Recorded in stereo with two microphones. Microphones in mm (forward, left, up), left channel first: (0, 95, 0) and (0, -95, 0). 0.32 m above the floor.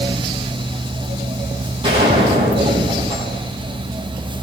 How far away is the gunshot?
About 5 m.